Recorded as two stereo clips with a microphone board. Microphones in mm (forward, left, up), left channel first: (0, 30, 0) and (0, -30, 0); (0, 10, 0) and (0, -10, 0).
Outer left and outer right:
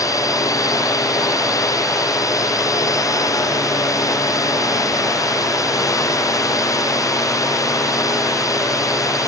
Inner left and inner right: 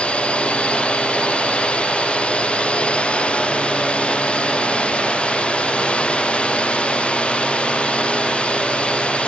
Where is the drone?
70° left (ahead or behind).